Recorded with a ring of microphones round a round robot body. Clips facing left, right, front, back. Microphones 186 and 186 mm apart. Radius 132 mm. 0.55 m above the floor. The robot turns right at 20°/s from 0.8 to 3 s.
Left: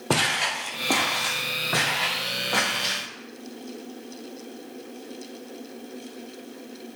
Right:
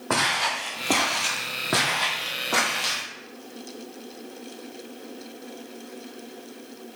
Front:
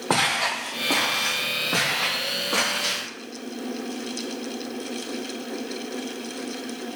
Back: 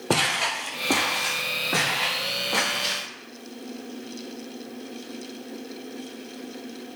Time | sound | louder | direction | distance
0.1 | footsteps | left 1 dB, back 1 dB | 125° left | 0.7 m